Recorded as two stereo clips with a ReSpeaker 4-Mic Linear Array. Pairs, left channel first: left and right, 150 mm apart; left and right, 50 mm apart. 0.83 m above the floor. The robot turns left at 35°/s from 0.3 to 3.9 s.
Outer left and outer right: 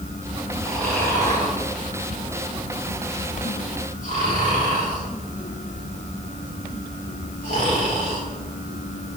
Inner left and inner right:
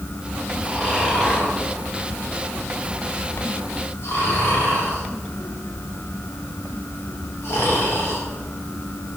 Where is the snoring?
5° left (ahead or behind), 3 m; by 8.2 s 60° left (ahead or behind), 3 m.